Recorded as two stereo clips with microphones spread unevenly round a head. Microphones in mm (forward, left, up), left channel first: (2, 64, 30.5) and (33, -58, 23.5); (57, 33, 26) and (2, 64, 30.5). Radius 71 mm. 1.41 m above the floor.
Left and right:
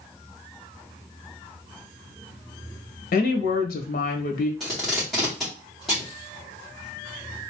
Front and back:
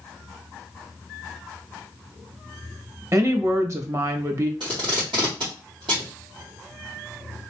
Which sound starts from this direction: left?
A woman speaking, at 3.1 s.